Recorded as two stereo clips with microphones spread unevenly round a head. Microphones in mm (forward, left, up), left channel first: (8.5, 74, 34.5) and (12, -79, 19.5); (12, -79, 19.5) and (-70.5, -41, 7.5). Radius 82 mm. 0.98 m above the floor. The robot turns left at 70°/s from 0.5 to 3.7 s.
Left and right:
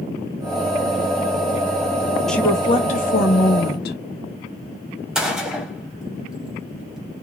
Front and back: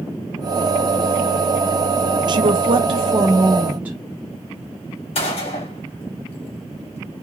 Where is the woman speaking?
Straight behind, 0.7 m; by 4.0 s 80° left, 0.7 m.